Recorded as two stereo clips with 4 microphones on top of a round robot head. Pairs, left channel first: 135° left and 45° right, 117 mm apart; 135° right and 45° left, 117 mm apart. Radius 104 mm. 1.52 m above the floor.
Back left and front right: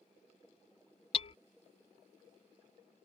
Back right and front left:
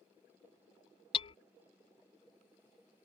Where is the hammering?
Straight behind.